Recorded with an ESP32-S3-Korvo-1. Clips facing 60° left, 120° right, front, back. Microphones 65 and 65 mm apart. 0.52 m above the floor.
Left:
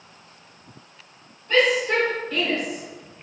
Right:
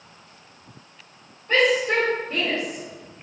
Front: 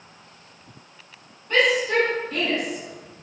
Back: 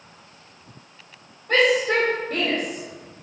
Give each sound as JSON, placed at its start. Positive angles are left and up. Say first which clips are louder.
{"t": 1.5, "sound": "a shout", "louder": "even, back 1 dB", "azimuth_deg": -175, "distance_m": 3.5}